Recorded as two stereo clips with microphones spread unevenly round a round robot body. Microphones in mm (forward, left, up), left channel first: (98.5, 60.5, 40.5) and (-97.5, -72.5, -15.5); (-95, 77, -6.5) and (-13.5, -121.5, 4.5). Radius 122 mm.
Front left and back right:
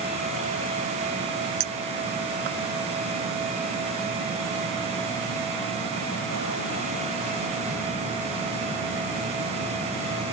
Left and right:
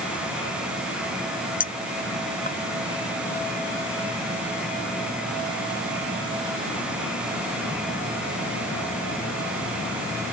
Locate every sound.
1.6 s a clink: 165° left